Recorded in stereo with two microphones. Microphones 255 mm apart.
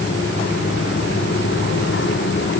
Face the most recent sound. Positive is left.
No sound to turn to.